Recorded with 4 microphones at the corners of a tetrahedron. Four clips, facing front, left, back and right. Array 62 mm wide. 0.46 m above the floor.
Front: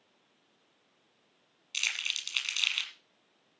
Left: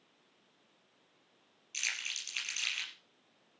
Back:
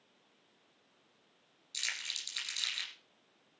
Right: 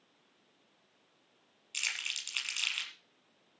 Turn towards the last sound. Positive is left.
turn(degrees=-25)